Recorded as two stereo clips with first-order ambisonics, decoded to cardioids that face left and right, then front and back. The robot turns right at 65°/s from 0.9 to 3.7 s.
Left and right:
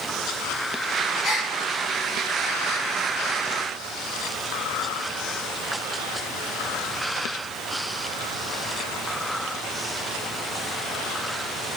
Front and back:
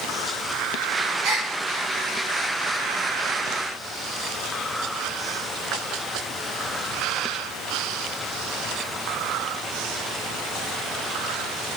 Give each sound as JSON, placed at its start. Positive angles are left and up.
{"t": 1.2, "sound": "a gasp", "azimuth_deg": 160, "distance_m": 0.9}